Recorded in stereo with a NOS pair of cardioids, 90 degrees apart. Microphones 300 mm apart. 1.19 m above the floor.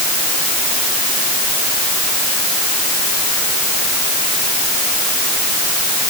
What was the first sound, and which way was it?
Only background noise.